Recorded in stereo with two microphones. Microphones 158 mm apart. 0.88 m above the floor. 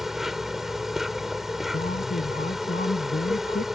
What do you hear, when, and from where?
0.0 s an insect: centre (ahead or behind)
1.7 s a man speaking: 80° left